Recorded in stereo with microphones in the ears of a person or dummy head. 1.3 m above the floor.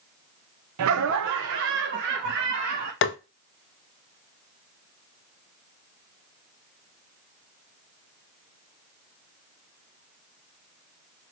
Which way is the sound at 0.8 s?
70° right (ahead or behind).